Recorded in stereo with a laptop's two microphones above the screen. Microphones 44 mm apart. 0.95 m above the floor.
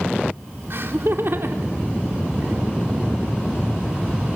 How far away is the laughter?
About 2.5 m.